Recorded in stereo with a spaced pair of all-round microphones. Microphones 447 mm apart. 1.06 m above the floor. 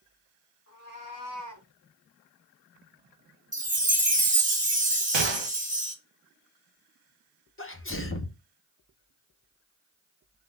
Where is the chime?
15° right (ahead or behind), 0.7 m.